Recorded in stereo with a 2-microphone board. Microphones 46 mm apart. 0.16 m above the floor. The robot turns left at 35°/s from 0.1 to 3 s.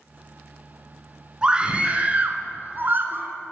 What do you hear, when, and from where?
1.4 s a scream: 25° right, 2 m; by 3.3 s 85° right, 2 m